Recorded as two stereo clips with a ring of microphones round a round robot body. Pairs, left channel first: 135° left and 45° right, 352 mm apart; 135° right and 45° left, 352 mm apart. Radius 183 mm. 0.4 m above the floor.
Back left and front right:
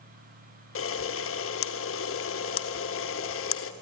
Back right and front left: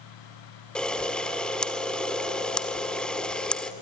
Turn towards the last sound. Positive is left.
turn(degrees=140)